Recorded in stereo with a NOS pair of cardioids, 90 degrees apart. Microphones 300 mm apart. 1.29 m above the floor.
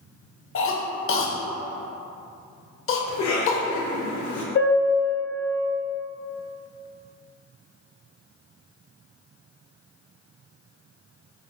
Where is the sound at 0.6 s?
40° left, 0.7 m.